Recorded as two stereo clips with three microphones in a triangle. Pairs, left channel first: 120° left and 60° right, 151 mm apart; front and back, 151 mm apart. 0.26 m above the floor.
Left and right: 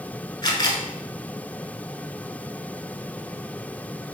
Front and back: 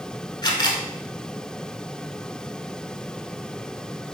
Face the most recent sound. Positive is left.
turn(degrees=60)